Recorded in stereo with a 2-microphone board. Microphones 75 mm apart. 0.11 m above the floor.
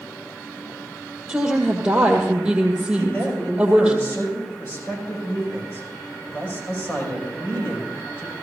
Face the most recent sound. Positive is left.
turn(degrees=35)  # may be behind; listen again after turning